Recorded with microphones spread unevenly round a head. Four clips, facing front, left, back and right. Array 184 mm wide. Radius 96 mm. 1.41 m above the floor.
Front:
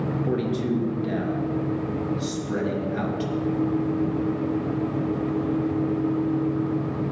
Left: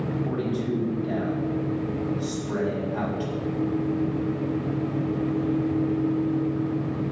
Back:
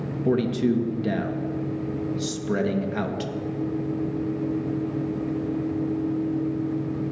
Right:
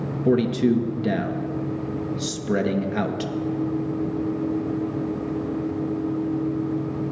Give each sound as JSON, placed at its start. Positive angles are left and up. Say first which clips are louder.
{"t": 0.2, "sound": "a man speaking", "louder": "right 7 dB, back 6 dB", "azimuth_deg": -115, "distance_m": 1.4}